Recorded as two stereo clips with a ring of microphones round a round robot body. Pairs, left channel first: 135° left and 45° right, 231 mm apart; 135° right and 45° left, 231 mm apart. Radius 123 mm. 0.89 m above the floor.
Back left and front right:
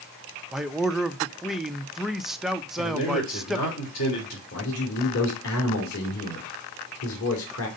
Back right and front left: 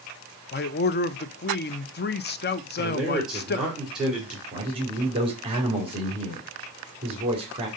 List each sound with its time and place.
0.5 s a man speaking: 135° right, 0.6 m
2.8 s a man speaking: 130° left, 2.5 m
4.5 s a man speaking: 110° left, 2.5 m